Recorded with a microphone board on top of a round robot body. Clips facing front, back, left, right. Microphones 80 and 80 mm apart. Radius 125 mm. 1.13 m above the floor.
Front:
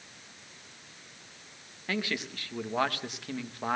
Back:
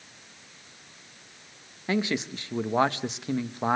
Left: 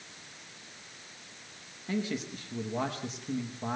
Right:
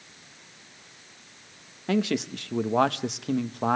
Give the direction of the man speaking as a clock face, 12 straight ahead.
4 o'clock.